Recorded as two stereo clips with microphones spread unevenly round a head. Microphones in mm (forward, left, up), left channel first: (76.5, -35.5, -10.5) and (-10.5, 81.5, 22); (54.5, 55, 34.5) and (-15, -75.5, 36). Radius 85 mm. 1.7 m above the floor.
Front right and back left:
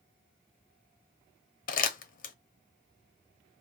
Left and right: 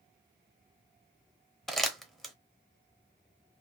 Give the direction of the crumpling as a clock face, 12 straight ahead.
1 o'clock.